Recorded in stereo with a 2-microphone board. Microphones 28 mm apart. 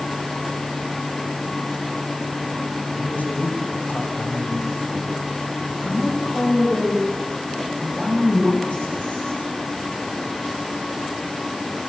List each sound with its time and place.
3.0 s a man speaking: 80° left, 6.5 m
5.8 s a woman speaking: 50° left (ahead or behind), 8 m